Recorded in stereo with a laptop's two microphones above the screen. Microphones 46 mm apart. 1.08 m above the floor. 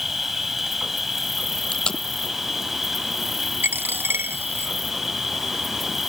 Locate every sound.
0.0 s an insect: 10° right (ahead or behind)
1.7 s tape being pulled: 20° left (ahead or behind)
3.6 s a dropped coin: 60° right (ahead or behind)